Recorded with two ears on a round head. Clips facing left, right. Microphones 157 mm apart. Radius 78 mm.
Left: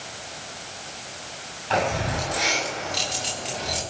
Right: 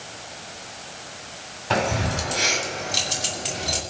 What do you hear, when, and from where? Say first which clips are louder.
1.7 s keys jangling: even; 65° right (ahead or behind), 7.5 m; by 3.8 s 60° right (ahead or behind), 6.5 m